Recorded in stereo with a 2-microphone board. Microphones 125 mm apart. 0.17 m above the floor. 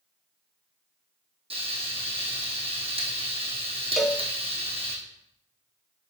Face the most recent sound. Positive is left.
turn(degrees=0)  # may be behind; listen again after turning